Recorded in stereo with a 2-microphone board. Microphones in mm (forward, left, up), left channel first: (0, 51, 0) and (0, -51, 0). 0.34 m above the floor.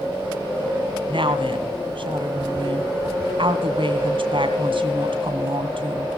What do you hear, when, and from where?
1.1 s a woman speaking: 65° right (ahead or behind), 2.5 m